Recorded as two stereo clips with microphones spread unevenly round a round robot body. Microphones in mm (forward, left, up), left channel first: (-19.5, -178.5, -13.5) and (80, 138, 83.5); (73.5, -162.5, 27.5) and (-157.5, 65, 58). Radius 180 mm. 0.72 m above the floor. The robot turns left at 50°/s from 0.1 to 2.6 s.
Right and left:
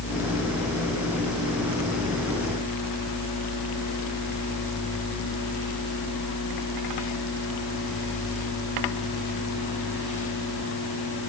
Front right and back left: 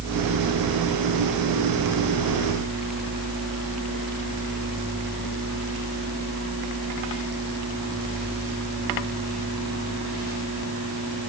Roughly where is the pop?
I don't hear a pop.